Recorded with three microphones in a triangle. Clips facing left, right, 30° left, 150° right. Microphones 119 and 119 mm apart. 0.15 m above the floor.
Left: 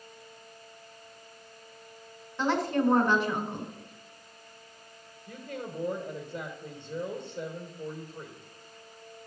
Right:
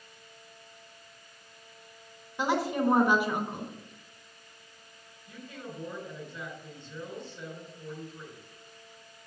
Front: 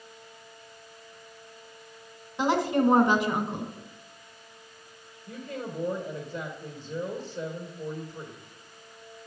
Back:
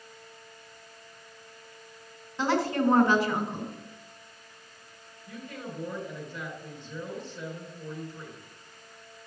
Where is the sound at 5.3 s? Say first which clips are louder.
Left 4 dB, front 4 dB; 80° left, 2.5 m.